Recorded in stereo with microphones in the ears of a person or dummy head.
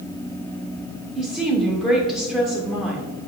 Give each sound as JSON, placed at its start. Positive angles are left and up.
{"t": 1.1, "sound": "a woman speaking", "side_deg": 0, "distance_m": 1.1}